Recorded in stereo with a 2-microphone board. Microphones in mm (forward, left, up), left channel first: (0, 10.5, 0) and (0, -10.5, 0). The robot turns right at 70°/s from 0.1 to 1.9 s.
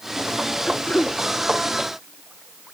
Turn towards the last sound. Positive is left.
turn(degrees=180)